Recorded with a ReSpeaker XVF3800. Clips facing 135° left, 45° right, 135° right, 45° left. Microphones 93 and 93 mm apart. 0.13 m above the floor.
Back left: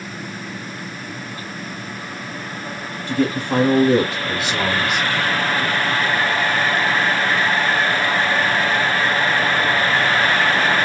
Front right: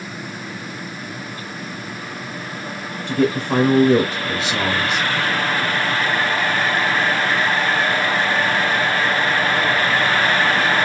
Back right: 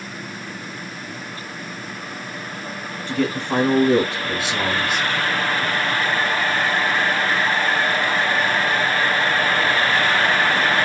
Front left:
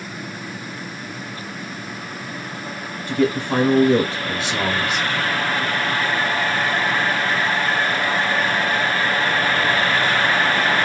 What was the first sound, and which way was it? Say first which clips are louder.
A man speaking: front right 1 dB, front left 3 dB; 95° right.